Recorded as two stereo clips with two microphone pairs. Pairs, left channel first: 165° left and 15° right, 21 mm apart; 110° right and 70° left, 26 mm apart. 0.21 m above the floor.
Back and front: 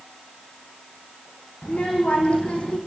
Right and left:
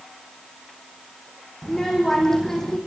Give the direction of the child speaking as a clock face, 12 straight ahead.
6 o'clock.